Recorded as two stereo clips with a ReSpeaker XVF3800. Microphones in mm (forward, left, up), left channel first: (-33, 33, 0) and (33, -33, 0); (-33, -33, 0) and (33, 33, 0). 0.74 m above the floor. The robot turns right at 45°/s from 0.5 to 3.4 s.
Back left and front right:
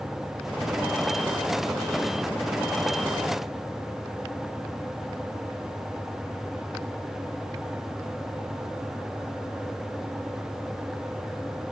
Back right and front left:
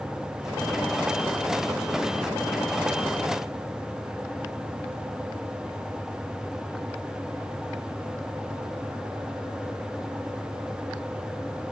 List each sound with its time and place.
Only background noise.